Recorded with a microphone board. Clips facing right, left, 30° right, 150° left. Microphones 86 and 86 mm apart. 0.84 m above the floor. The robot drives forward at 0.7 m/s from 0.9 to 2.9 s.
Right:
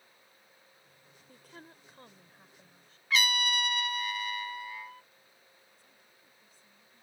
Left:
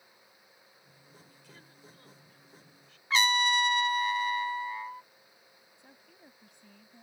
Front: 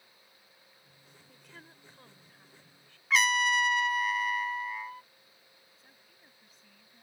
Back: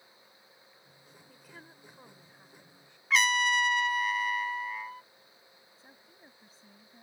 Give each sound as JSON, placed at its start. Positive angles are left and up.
{"t": 1.3, "sound": "a woman speaking", "azimuth_deg": -125}
{"t": 3.1, "sound": "a trumpet", "azimuth_deg": 60}
{"t": 5.8, "sound": "a woman speaking", "azimuth_deg": 95}